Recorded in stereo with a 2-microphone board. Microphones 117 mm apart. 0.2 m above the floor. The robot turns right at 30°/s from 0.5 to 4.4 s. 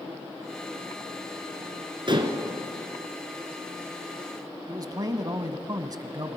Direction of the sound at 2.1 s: 45° right (ahead or behind).